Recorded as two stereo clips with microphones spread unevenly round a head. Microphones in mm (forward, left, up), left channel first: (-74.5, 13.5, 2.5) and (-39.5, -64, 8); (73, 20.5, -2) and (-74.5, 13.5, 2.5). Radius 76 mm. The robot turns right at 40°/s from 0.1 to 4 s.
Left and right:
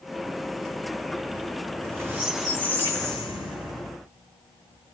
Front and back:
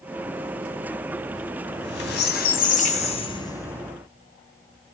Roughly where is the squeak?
Ahead.